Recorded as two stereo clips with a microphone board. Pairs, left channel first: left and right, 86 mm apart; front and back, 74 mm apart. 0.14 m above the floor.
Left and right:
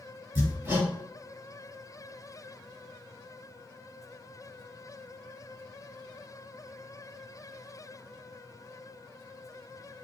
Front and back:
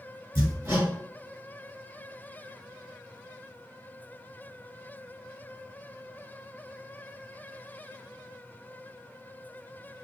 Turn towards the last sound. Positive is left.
turn(degrees=-145)